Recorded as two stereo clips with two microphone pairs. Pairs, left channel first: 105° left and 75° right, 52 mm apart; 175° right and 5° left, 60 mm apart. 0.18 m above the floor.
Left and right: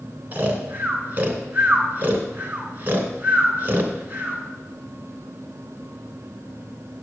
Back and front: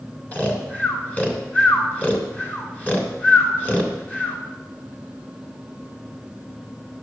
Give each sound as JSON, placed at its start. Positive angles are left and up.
{"t": 0.3, "sound": "snoring", "azimuth_deg": -125, "distance_m": 2.0}